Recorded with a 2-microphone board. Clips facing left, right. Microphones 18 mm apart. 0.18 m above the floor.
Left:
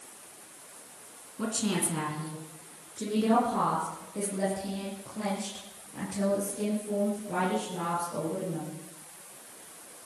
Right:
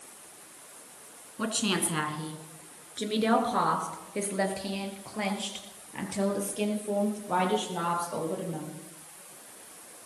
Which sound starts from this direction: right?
A woman speaking, at 1.4 s.